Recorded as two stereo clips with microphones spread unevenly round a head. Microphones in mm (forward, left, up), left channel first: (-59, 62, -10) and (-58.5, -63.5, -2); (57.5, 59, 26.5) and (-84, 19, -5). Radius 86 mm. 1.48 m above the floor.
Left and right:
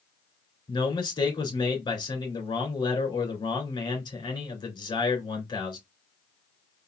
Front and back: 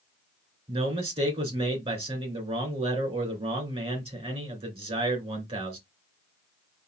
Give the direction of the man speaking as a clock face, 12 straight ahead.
7 o'clock.